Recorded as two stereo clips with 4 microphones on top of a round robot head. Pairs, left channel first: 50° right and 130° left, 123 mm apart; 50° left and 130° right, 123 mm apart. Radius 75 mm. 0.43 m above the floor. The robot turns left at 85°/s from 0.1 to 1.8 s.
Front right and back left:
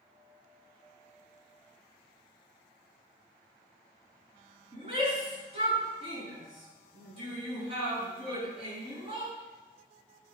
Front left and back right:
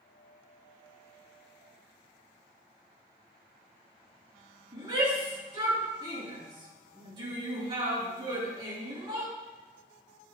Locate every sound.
4.7 s a shout: 175° left, 6 m